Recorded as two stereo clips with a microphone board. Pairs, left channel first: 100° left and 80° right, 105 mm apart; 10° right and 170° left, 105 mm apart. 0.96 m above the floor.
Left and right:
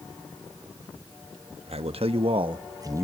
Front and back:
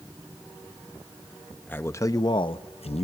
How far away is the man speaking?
About 1.3 m.